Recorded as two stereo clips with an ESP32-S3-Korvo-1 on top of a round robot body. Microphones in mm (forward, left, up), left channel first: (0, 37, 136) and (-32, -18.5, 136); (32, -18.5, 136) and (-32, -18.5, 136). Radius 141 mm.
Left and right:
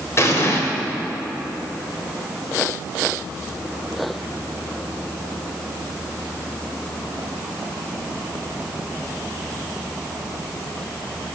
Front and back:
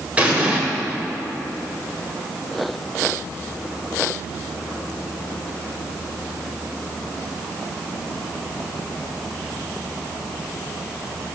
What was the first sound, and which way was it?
An explosion, 110° left.